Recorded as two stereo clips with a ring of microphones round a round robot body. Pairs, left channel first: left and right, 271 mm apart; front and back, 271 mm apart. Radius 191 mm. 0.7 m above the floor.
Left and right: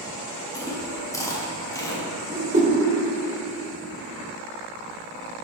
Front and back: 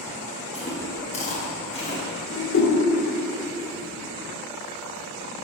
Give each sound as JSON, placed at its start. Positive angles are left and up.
{"t": 0.5, "sound": "chewing", "azimuth_deg": 25, "distance_m": 1.2}
{"t": 2.3, "sound": "a whoosh", "azimuth_deg": -30, "distance_m": 1.4}